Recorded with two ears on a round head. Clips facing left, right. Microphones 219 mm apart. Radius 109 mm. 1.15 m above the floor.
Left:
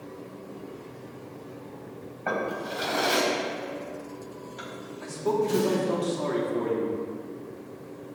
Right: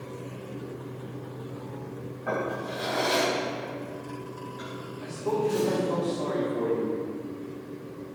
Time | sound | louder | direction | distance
2.3 | a drawer | even | 75° left (ahead or behind) | 4 m
5.0 | a man speaking | left 1 dB | 65° left (ahead or behind) | 3 m